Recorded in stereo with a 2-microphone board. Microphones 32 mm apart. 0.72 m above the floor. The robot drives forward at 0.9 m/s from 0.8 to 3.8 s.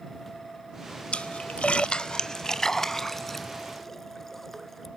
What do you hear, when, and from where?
1.1 s a splash: 35° left (ahead or behind); by 4.9 s 10° left (ahead or behind)